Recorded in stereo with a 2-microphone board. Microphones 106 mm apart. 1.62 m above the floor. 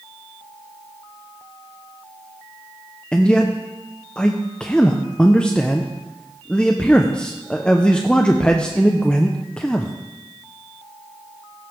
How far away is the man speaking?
About 0.6 m.